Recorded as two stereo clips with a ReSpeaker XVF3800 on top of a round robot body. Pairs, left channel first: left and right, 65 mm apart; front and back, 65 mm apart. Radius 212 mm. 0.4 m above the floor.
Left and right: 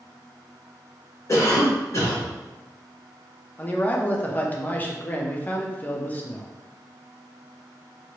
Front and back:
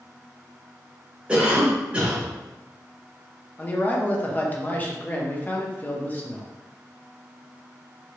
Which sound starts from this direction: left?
A cough, at 1.3 s.